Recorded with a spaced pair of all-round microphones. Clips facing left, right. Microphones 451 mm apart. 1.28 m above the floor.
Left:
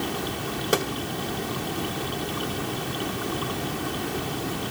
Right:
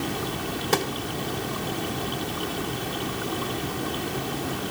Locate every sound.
0.7 s a gunshot: 10° right (ahead or behind), 1.2 m